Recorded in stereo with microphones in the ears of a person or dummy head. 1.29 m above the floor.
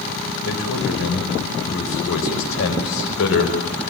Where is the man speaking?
80° left, 5.5 m.